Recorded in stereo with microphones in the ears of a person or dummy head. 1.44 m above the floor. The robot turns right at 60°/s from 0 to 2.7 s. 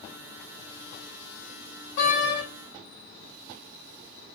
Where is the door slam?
70° left (ahead or behind), 1.9 m; by 2.4 s 45° left (ahead or behind), 1.9 m.